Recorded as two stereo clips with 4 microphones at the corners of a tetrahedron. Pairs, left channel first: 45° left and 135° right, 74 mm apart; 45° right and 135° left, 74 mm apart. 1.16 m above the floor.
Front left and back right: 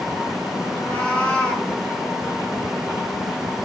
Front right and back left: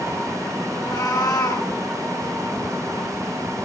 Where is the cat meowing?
30° right, 3.5 m.